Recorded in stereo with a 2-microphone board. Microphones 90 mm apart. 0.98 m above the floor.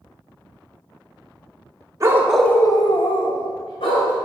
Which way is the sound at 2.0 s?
35° right (ahead or behind).